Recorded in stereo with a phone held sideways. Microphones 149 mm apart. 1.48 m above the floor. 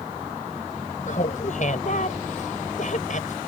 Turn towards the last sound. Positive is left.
turn(degrees=55)  # may be behind; listen again after turning